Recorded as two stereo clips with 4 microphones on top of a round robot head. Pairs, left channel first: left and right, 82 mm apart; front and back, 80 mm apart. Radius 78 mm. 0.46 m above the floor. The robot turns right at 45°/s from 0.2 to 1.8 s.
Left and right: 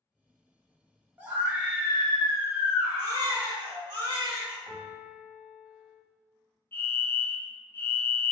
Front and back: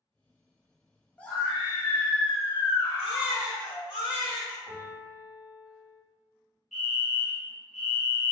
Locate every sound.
1.2 s a scream: 50° right, 0.8 m; by 3.9 s 20° right, 0.8 m
3.0 s a baby crying: 60° right, 2.0 m
4.7 s a piano: 25° right, 1.9 m
6.7 s a fire alarm: 95° left, 1.9 m